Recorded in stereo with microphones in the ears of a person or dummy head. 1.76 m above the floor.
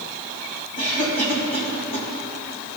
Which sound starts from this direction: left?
A cough, at 0.8 s.